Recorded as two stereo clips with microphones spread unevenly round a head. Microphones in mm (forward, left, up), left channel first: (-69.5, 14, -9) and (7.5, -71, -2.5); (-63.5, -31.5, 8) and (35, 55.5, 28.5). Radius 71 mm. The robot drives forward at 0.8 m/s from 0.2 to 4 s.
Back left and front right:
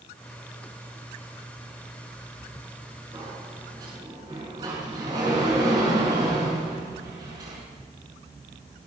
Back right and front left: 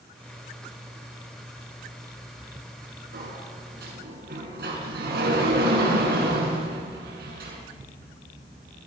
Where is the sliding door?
15° left, 7 m; by 7.6 s 20° left, 6.5 m.